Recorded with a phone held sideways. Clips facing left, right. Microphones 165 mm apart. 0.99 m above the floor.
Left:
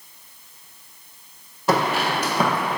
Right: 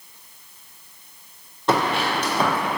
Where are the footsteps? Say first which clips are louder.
Even; 5° left (ahead or behind), 1.7 m; by 2.8 s 15° left (ahead or behind), 1.2 m.